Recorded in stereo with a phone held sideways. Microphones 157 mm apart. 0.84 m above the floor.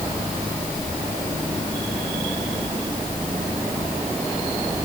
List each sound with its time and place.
Only background noise.